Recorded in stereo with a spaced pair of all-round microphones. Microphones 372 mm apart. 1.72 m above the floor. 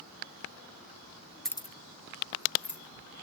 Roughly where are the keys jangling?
Centre.